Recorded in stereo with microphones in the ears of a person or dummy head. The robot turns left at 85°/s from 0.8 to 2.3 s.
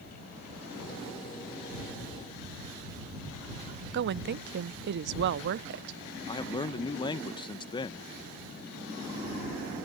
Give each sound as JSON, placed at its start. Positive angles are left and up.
{"t": 3.9, "sound": "a woman speaking", "side_deg": -60}
{"t": 6.3, "sound": "a man speaking", "side_deg": 25}